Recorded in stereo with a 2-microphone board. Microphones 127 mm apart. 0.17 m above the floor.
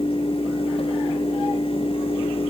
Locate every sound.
Only background noise.